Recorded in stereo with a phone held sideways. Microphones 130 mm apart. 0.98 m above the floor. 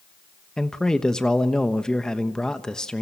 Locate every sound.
0.6 s a man speaking: 5° left (ahead or behind), 1.0 m